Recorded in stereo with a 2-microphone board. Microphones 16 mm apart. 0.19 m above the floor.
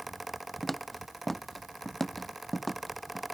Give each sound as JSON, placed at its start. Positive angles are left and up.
{"t": 0.6, "sound": "footsteps", "side_deg": 15}